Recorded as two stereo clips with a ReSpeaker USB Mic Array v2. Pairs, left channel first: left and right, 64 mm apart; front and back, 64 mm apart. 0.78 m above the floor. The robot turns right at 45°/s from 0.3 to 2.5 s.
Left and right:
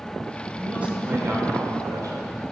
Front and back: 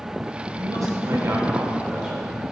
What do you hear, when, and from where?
0.6 s a man speaking: 170° right, 3 m; by 2.5 s 85° right, 3 m